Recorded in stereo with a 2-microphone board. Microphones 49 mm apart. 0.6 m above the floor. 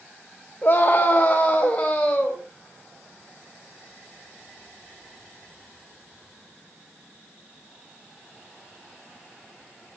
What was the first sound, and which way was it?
A scream, 40° left (ahead or behind).